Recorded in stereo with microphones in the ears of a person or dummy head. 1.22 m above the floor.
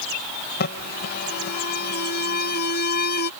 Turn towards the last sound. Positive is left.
turn(degrees=65)  # may be behind; listen again after turning